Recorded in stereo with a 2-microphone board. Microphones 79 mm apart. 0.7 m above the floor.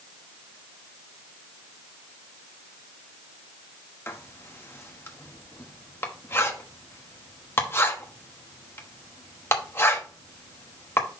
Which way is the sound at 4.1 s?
30° left (ahead or behind).